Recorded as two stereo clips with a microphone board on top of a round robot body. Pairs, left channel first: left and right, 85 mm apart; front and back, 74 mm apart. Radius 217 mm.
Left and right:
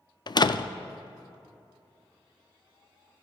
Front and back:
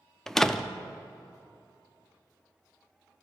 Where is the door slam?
80° left, 0.6 m.